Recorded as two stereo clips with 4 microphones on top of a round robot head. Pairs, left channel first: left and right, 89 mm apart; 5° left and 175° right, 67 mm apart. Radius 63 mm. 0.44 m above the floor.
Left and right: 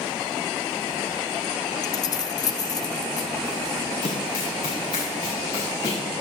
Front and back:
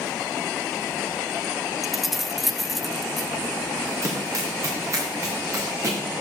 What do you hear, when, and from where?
1.8 s keys jangling: 95° left, 0.5 m
4.0 s running footsteps: 140° left, 4 m; by 6.0 s 145° left, 5 m